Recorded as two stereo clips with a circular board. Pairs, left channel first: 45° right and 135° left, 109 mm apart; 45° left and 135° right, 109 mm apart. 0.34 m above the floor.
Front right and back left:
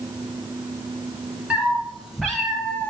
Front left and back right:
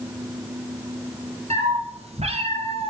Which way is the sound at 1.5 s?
150° right.